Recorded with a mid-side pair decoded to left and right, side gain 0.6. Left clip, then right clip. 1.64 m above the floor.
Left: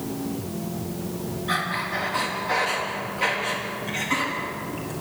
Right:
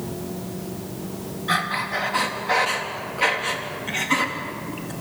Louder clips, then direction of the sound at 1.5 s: Right 3 dB; 25° right.